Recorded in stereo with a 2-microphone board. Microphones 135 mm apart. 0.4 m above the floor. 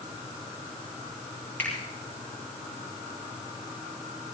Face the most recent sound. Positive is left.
turn(degrees=15)  # may be behind; listen again after turning